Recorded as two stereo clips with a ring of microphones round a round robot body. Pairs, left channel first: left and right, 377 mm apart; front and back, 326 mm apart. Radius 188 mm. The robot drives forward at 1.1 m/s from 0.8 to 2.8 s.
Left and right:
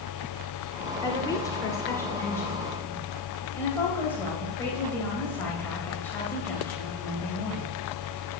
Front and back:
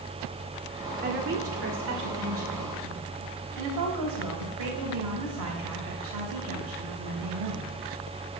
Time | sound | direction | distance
1.0 | a woman speaking | 160° left | 1.4 m